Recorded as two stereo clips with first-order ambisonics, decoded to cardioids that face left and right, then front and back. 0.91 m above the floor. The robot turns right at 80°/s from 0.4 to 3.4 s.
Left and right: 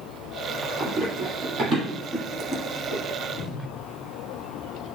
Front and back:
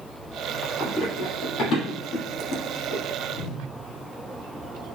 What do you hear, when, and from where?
0.8 s running footsteps: 85° right, 1.0 m; by 3.0 s 50° left, 1.7 m
3.3 s a whoosh: 35° left, 0.7 m; by 3.6 s 45° left, 0.7 m